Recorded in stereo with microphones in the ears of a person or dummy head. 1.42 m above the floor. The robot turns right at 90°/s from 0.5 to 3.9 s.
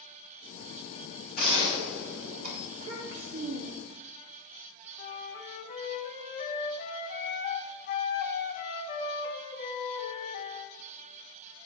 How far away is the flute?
About 2.5 m.